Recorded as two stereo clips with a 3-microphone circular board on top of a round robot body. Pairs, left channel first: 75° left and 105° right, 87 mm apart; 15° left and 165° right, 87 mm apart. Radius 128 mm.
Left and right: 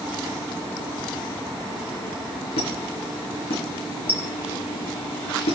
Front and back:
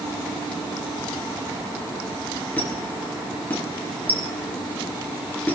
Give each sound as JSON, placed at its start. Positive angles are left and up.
{"t": 2.6, "sound": "a squeak", "azimuth_deg": 85, "distance_m": 4.5}